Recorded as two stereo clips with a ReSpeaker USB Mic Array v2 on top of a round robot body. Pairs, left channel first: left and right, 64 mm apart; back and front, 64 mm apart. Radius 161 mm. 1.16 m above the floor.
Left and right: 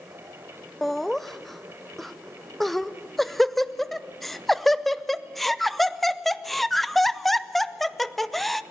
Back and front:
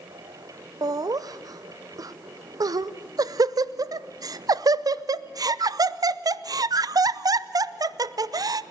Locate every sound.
0.8 s laughter: straight ahead, 0.8 m